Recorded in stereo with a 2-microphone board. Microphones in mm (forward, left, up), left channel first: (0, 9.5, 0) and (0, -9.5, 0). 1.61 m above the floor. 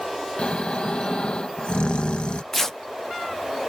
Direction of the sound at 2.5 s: 15° left (ahead or behind).